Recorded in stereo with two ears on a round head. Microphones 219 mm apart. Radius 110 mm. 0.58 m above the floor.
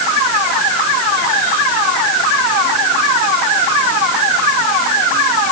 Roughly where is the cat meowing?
I don't hear a cat meowing.